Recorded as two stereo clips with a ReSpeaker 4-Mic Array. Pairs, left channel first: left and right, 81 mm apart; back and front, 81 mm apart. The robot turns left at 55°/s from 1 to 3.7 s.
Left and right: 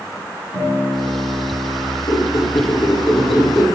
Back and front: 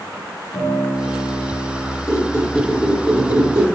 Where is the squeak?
125° left, 5 m; by 3.6 s 40° left, 5 m.